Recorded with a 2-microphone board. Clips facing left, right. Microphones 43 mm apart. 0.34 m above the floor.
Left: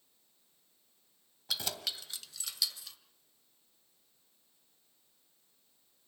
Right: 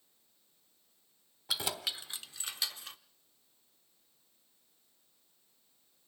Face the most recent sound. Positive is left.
turn(degrees=-40)  # may be behind; listen again after turning